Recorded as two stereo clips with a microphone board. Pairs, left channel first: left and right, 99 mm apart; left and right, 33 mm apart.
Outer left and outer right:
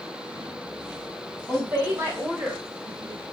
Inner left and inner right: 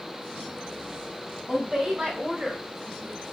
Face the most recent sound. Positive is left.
turn(degrees=-30)  # may be behind; listen again after turning